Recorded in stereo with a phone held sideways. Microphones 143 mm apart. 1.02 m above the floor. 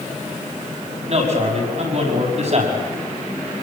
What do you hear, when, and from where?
1.1 s a man speaking: 50° right (ahead or behind), 6.5 m